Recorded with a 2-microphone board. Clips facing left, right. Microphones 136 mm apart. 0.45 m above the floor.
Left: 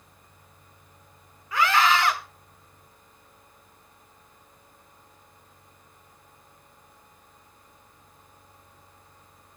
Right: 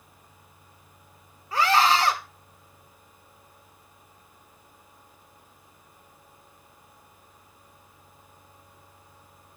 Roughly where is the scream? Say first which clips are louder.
Right 1 dB; right.